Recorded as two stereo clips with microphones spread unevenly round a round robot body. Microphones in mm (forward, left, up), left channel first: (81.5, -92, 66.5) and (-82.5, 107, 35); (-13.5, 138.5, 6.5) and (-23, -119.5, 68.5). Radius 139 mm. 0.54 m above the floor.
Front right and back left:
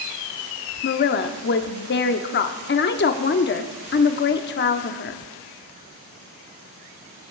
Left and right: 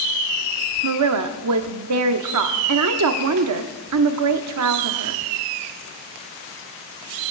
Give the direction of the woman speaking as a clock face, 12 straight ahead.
3 o'clock.